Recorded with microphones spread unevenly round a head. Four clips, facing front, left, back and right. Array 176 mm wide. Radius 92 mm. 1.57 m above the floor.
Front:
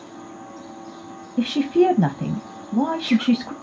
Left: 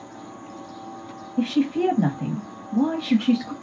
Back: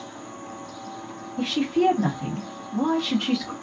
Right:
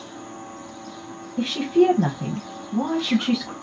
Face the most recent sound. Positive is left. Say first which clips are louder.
# right 3 dB, front 5 dB
turn(degrees=0)